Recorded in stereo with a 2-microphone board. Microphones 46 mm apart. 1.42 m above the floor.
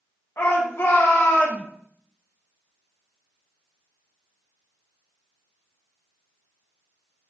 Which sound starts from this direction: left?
A shout, at 0.4 s.